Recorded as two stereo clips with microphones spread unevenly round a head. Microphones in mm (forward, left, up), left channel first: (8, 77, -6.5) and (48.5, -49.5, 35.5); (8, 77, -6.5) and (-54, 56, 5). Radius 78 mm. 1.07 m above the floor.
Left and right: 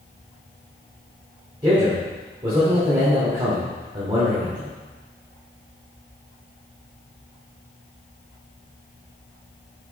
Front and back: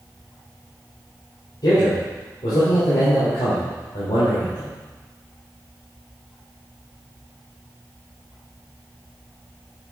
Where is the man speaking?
10° right, 3 m.